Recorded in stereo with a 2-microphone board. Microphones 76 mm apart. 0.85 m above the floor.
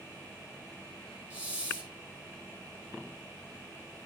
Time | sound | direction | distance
1.3 | a hiss | 20° right (ahead or behind) | 2.5 m